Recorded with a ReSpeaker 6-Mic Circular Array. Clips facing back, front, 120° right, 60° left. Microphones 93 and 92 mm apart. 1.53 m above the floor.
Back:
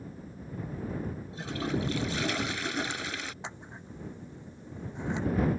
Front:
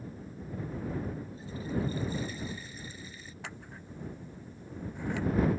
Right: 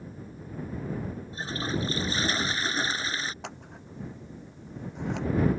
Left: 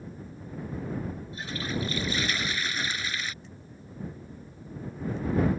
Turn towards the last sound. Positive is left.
turn(degrees=-110)